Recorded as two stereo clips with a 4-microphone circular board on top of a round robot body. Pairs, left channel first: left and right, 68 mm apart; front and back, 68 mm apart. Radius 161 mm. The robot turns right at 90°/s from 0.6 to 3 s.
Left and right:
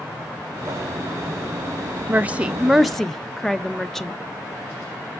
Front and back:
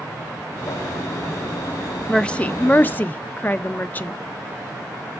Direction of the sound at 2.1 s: 70° right.